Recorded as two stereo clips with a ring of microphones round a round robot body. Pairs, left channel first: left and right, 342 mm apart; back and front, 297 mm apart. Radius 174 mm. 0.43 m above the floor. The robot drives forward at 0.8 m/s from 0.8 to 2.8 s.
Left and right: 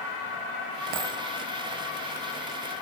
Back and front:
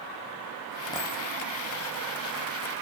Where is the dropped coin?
100° right, 5 m.